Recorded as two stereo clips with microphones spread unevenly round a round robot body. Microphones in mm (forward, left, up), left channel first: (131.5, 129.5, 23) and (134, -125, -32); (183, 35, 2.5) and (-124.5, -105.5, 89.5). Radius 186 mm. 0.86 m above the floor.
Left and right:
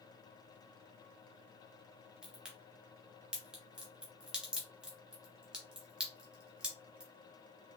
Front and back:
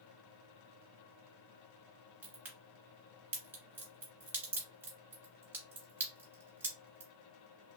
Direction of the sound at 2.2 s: 160° left.